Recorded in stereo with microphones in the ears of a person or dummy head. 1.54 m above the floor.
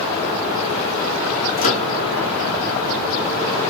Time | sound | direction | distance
1.6 | a microwave | 35° left (ahead or behind) | 1.3 m